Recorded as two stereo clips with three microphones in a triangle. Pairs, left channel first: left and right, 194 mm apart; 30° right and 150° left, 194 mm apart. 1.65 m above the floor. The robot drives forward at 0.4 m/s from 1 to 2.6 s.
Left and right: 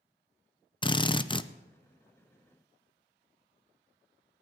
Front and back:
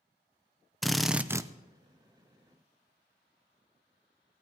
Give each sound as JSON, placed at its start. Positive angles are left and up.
{"t": 0.8, "sound": "a drill", "azimuth_deg": 60, "distance_m": 0.5}